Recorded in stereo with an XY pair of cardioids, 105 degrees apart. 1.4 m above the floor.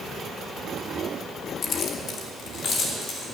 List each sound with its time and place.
1.6 s keys jangling: 65° left, 1.1 m